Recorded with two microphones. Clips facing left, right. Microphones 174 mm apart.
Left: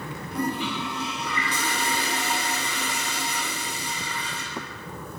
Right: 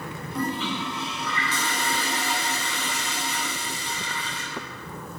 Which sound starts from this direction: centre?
A toilet flushing, at 0.3 s.